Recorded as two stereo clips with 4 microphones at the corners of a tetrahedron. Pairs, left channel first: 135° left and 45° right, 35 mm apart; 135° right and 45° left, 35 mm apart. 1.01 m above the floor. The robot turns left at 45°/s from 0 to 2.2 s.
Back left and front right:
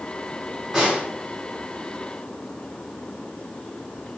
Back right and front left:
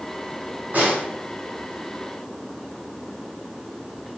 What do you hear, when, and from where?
0.7 s a snare drum: 30° left, 1.3 m; by 1.1 s 15° left, 1.3 m